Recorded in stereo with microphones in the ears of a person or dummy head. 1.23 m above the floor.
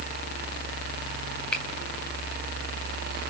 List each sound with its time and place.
1.5 s a finger snap: 10° left (ahead or behind), 1.2 m